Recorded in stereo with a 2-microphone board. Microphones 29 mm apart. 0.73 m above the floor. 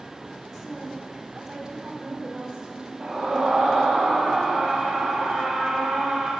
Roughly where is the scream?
Right.